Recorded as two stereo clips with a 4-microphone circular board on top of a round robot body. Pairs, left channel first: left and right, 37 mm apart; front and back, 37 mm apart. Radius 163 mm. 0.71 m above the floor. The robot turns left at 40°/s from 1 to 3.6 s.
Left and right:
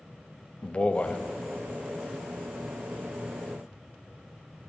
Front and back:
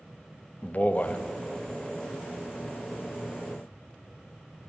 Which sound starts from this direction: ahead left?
A man speaking, at 0.6 s.